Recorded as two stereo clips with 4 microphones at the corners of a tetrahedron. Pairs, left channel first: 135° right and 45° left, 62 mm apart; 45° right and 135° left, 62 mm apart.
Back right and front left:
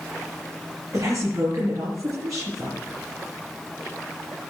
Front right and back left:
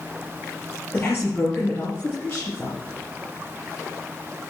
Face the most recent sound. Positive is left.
turn(degrees=15)